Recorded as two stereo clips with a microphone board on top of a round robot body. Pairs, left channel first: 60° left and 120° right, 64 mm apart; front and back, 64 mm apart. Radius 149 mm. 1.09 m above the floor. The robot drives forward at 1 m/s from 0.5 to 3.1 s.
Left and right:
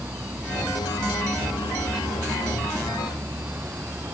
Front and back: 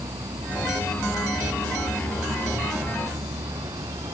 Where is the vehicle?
Straight behind.